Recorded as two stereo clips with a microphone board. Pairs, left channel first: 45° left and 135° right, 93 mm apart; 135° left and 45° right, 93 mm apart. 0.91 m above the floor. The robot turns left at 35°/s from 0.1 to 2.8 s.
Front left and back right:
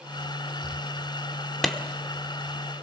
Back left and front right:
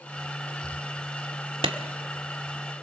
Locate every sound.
1.6 s a clap: 45° right, 1.9 m